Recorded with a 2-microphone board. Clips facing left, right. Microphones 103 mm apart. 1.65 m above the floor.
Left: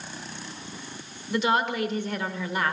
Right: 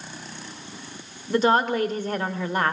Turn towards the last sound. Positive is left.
turn(degrees=-40)  # may be behind; listen again after turning